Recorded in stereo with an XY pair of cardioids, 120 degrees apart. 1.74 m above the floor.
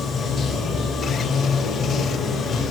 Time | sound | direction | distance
0.0 | running water | 50° left | 4 m